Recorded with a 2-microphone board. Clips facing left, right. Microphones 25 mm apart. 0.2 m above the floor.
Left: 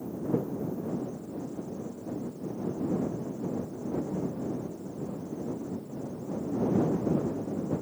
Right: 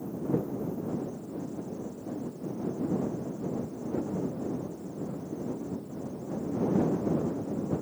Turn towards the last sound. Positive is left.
No sound to turn to.